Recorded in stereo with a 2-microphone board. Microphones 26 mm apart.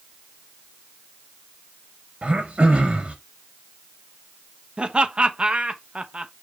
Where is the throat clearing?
70° right (ahead or behind), 3.5 m.